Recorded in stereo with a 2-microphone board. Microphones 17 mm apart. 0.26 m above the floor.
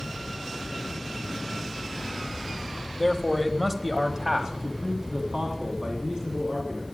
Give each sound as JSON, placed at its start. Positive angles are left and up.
{"t": 3.0, "sound": "a man speaking", "side_deg": 15, "distance_m": 1.0}